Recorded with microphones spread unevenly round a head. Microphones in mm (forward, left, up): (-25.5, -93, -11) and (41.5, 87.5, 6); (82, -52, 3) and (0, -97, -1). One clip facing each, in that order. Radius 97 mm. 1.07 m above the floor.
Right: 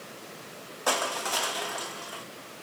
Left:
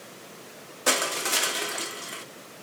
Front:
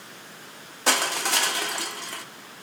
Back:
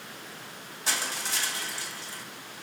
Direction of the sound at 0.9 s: 10° left.